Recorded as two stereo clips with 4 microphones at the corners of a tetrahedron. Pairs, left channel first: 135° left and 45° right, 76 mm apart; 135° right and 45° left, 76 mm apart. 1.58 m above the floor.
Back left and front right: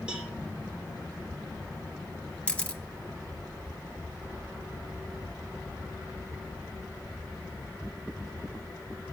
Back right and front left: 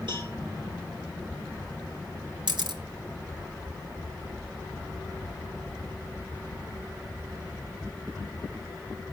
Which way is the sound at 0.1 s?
30° left.